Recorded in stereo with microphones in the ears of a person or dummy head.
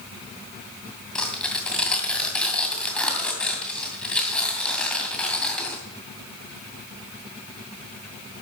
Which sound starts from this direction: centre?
Tearing paper, at 1.1 s.